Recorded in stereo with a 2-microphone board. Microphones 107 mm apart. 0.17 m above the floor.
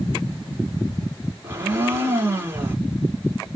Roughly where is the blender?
Right.